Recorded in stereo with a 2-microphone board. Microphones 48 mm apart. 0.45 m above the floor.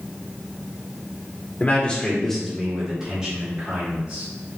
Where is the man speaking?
35° left (ahead or behind), 1.1 m; by 4.2 s 20° right (ahead or behind), 3 m.